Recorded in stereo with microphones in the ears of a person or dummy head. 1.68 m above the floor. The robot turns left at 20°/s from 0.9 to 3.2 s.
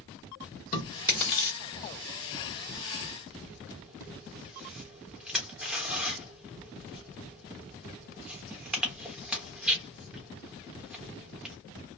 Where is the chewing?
30° left (ahead or behind), 1.4 m; by 11.6 s 5° right (ahead or behind), 1.4 m.